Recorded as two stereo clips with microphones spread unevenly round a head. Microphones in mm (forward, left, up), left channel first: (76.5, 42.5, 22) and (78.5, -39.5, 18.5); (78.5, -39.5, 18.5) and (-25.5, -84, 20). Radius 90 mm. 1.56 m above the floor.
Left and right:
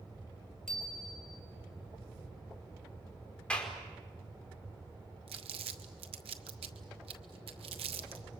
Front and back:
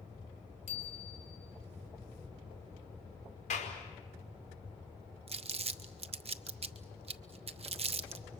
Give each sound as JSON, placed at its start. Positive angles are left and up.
{"t": 0.7, "sound": "a bicycle bell", "azimuth_deg": 10, "distance_m": 4.5}
{"t": 3.5, "sound": "a clap", "azimuth_deg": 15, "distance_m": 5.0}
{"t": 5.3, "sound": "crumpling", "azimuth_deg": -125, "distance_m": 1.0}